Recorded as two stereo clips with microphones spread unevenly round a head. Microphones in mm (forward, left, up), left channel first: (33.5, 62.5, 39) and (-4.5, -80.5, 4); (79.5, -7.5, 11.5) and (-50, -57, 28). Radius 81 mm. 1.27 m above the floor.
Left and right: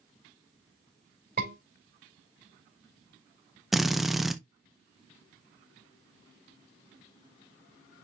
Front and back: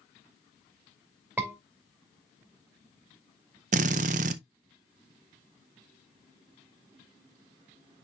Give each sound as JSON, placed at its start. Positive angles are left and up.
{"t": 1.4, "sound": "a scream", "azimuth_deg": -80, "distance_m": 3.0}
{"t": 3.7, "sound": "a drill", "azimuth_deg": 160, "distance_m": 0.5}